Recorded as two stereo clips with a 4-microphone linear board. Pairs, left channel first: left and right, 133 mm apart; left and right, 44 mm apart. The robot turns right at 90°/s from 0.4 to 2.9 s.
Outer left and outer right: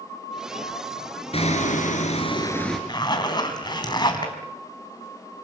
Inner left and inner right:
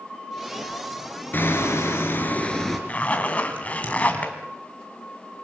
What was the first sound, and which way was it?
Hammering, 50° left.